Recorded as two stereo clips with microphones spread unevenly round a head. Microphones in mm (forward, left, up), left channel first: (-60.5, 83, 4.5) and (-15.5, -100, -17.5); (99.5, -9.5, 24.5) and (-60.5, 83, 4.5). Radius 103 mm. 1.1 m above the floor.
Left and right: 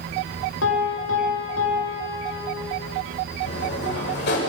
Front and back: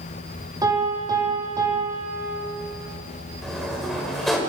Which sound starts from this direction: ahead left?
A sliding door, at 3.4 s.